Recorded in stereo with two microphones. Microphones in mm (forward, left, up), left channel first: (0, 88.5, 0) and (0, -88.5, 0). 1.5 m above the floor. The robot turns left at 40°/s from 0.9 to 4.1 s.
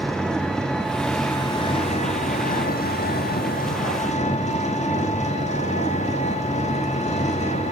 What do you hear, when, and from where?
0.0 s an engine running: 175° left, 1.7 m; by 7.7 s 50° left, 1.7 m